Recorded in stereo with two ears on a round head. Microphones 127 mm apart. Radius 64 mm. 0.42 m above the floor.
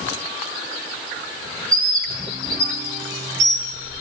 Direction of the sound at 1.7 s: 25° right (ahead or behind).